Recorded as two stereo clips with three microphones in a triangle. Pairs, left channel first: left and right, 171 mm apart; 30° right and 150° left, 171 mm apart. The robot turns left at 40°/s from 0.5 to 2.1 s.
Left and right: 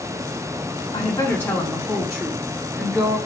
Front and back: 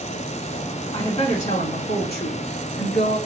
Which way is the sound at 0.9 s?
30° left.